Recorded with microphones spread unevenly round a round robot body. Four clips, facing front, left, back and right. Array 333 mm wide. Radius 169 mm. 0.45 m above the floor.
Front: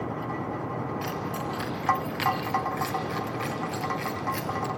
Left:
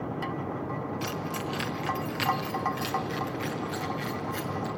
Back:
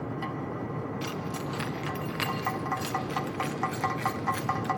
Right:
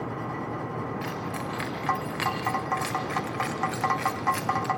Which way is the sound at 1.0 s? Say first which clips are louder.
Even, front 3 dB; 165° left.